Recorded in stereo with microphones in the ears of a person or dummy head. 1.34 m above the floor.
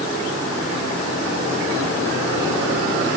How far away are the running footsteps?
I don't hear running footsteps.